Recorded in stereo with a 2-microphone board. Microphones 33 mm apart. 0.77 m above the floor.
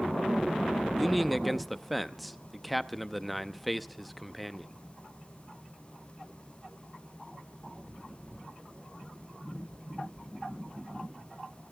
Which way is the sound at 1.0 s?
5° right (ahead or behind).